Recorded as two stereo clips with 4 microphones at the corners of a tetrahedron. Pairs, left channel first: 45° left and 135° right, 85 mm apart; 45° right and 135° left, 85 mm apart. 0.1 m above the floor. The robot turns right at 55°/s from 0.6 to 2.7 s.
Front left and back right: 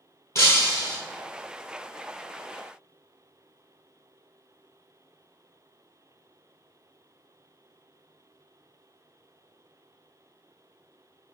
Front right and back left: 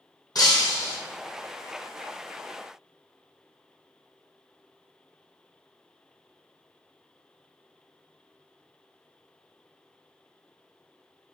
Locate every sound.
0.3 s breaking glass: 10° right, 1.0 m; by 1.0 s 10° left, 1.0 m